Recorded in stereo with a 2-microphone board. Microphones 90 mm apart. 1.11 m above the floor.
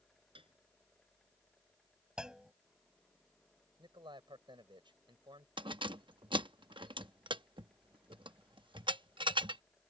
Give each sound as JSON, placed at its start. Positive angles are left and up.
{"t": 0.3, "sound": "a piano", "side_deg": -75}
{"t": 2.2, "sound": "a clunk", "side_deg": -10}
{"t": 3.8, "sound": "a man speaking", "side_deg": -60}
{"t": 5.6, "sound": "keys jangling", "side_deg": -65}